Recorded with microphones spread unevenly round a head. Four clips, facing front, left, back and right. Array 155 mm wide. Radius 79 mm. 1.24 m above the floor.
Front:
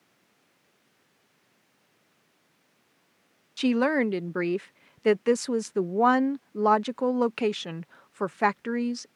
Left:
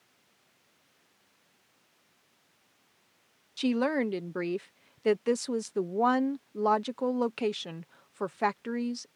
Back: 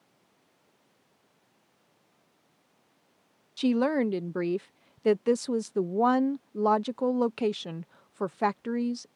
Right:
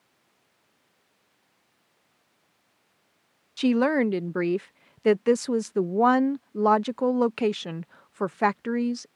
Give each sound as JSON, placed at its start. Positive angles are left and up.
{"t": 3.6, "sound": "a woman speaking", "azimuth_deg": -45}